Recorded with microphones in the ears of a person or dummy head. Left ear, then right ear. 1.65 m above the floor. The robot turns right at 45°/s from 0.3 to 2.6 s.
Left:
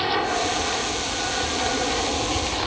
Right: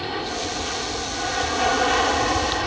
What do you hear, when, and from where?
0.0 s an aircraft: 150° left; by 2.7 s 105° right